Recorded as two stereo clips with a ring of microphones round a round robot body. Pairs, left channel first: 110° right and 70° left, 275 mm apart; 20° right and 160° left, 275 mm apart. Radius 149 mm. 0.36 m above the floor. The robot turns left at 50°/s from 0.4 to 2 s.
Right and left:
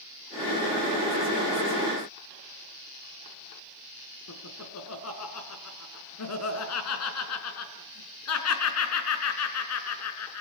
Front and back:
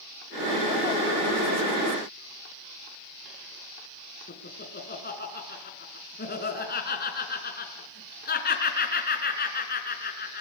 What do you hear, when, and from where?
4.3 s laughter: 80° right, 4.5 m